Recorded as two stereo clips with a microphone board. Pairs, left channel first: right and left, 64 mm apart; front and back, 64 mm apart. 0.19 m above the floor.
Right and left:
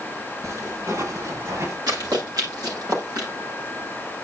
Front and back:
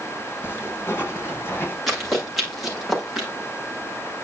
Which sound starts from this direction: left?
Running footsteps, at 1.9 s.